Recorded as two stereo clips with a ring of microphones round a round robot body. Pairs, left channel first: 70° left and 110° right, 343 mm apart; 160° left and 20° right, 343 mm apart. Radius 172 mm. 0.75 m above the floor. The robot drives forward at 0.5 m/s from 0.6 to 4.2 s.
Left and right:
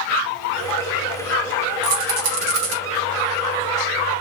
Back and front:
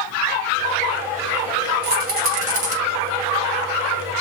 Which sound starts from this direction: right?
A rattle, at 1.8 s.